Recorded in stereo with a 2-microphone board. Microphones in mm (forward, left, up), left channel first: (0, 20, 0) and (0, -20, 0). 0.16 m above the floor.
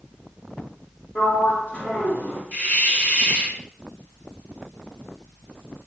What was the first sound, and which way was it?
A sliding door, 50° left (ahead or behind).